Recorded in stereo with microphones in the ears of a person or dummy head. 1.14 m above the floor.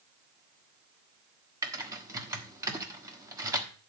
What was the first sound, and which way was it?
Typing on a keyboard, 15° right (ahead or behind).